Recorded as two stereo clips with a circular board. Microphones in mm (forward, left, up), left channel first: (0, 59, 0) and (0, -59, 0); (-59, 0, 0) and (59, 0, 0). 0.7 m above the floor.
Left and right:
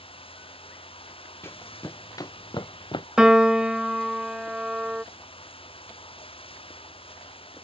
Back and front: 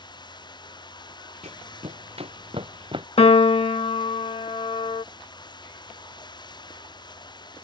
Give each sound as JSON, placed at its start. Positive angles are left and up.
{"t": 0.0, "sound": "running water", "azimuth_deg": 130}
{"t": 1.4, "sound": "running footsteps", "azimuth_deg": 20}
{"t": 3.2, "sound": "a piano", "azimuth_deg": -170}